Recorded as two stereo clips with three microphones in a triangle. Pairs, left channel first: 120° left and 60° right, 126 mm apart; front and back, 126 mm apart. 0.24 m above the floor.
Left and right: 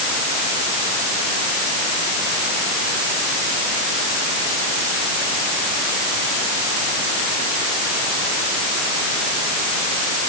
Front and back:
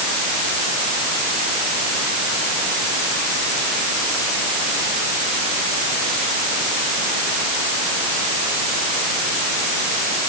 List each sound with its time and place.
Only background noise.